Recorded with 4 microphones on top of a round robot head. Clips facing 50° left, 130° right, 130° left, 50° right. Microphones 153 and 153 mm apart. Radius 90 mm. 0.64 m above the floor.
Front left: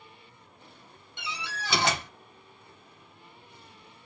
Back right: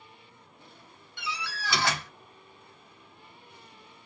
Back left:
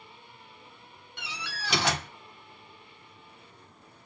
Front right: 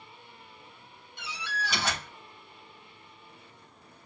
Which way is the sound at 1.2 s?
120° left.